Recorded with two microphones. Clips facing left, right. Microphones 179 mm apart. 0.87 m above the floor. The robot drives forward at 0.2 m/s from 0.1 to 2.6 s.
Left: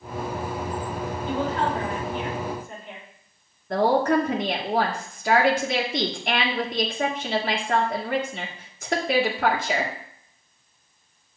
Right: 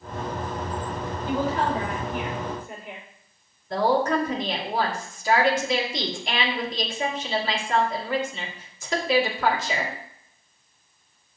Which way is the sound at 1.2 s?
10° right (ahead or behind).